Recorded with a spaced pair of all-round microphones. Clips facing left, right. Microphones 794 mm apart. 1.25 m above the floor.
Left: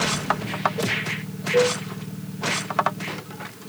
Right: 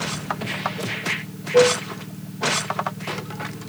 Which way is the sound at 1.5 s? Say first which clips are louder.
Right 4 dB; 85° left.